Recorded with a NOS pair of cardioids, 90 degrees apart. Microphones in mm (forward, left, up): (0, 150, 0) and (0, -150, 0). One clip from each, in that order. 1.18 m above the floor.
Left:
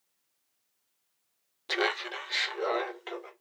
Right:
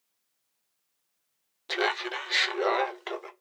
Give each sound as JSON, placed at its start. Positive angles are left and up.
{"t": 1.7, "sound": "laughter", "azimuth_deg": 5, "distance_m": 0.5}